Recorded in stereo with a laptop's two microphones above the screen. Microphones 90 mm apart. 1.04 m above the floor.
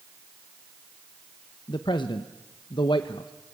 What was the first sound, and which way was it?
A man speaking, 60° left (ahead or behind).